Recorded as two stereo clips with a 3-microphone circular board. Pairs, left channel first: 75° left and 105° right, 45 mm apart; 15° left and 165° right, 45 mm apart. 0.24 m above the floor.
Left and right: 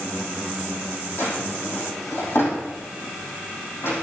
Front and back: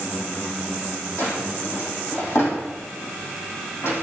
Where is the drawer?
40° left, 4.5 m.